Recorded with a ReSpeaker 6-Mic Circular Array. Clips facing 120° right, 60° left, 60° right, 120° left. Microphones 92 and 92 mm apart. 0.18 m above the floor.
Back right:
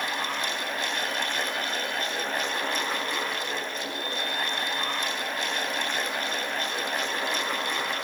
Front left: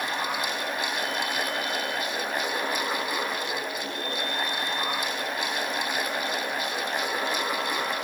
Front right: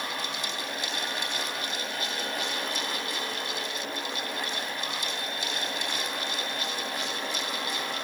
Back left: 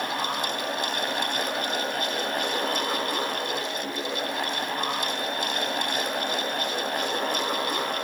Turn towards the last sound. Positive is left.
No sound to turn to.